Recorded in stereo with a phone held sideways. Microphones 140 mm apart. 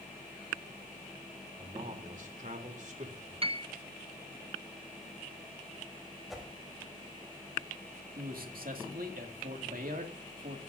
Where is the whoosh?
Centre (ahead or behind), 3.5 m.